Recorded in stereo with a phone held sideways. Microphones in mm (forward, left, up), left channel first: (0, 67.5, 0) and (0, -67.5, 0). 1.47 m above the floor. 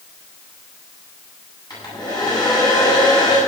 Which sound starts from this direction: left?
A hair dryer, at 1.7 s.